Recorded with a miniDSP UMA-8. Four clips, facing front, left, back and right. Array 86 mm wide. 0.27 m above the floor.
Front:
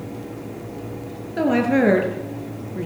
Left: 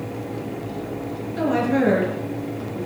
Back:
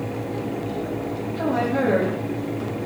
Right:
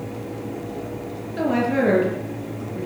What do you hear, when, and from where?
1.4 s a woman speaking: 10° right, 5.5 m